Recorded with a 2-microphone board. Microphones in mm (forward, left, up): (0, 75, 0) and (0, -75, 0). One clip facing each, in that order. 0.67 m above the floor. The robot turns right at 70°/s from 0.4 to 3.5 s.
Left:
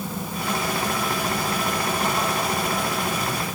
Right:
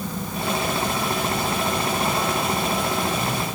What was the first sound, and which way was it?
Only background noise.